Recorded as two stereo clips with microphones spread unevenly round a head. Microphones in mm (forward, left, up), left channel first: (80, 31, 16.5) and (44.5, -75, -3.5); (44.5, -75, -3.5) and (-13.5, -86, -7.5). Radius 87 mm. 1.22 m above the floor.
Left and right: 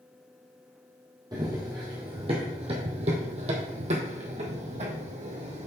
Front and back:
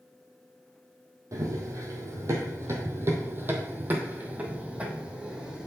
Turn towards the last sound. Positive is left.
turn(degrees=-95)